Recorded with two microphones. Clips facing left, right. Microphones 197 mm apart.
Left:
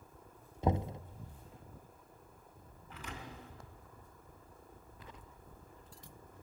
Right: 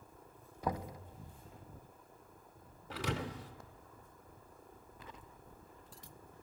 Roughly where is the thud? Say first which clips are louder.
Right 9 dB; right.